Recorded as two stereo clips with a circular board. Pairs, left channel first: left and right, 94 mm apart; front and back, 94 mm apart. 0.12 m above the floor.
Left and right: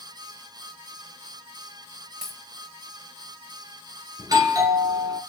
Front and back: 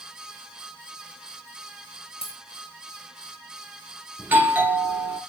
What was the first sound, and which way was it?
A dropped coin, 5° right.